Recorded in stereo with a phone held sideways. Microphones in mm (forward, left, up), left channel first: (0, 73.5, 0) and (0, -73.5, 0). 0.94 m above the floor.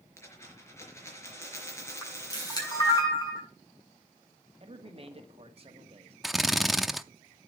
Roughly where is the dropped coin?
Centre.